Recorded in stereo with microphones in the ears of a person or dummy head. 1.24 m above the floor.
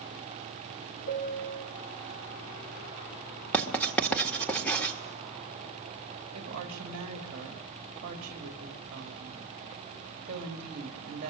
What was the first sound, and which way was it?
A piano, 50° left (ahead or behind).